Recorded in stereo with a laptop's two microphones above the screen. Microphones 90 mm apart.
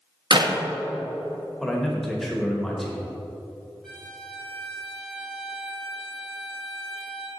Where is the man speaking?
Centre (ahead or behind), 1.0 m.